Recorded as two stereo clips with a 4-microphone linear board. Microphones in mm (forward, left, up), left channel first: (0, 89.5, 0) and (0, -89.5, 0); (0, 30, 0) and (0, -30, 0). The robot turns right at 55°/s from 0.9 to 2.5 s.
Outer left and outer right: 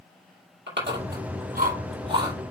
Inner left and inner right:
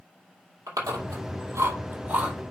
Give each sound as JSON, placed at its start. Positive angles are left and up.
{"t": 0.7, "sound": "chewing", "side_deg": -85, "distance_m": 4.5}